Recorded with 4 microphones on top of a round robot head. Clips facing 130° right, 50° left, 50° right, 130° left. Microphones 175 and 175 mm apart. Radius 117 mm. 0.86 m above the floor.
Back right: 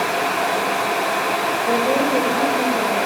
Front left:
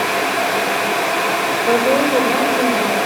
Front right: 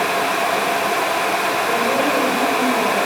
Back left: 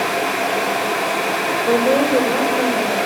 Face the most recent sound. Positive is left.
turn(degrees=95)